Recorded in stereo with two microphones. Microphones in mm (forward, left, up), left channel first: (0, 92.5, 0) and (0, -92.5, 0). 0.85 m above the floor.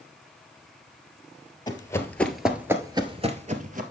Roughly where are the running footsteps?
Left.